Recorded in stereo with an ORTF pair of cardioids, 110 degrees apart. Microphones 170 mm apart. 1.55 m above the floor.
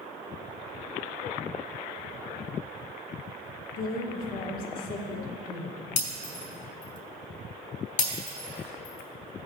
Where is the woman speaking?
60° left, 1.3 m; by 5.8 s 55° left, 2.5 m.